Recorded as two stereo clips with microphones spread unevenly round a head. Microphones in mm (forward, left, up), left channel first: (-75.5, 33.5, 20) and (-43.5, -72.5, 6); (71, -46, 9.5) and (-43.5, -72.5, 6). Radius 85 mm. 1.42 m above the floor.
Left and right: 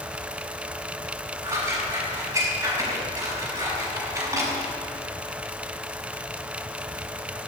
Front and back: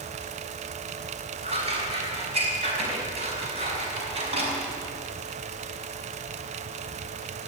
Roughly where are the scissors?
Behind right.